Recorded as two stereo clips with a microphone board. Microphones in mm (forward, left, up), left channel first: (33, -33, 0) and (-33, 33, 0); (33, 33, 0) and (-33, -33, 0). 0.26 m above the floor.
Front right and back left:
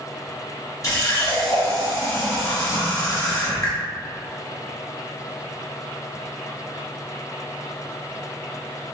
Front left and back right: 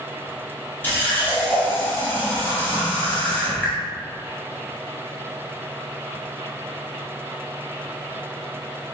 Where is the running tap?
15° right, 0.9 m.